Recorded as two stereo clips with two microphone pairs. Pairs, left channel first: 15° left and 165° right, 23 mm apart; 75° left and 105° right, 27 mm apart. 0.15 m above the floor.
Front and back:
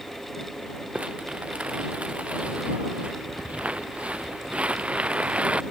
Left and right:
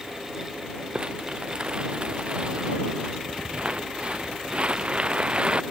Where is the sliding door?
No sliding door in this recording.